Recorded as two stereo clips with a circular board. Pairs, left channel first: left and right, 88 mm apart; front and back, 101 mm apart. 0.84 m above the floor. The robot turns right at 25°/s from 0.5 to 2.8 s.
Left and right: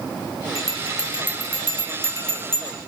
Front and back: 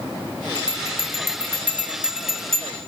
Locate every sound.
0.6 s a bell: 135° right, 1.2 m; by 2.8 s 80° right, 1.2 m